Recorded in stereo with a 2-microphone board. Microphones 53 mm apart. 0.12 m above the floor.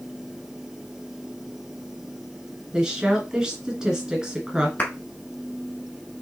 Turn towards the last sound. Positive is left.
turn(degrees=30)  # may be behind; listen again after turning